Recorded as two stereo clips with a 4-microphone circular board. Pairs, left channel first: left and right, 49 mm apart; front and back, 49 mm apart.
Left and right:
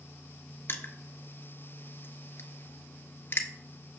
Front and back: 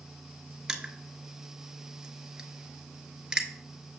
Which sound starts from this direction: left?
Crushing, at 0.7 s.